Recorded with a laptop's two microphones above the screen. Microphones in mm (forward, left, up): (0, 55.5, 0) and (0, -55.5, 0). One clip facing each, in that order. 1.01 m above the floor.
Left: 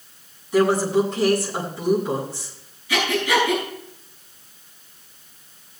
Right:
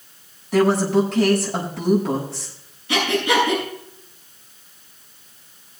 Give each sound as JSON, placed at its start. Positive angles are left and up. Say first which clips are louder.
{"t": 0.5, "sound": "a woman speaking", "louder": "right 1 dB", "side_deg": -75, "distance_m": 6.0}
{"t": 2.9, "sound": "breathing", "louder": "right 1 dB", "side_deg": -70, "distance_m": 9.0}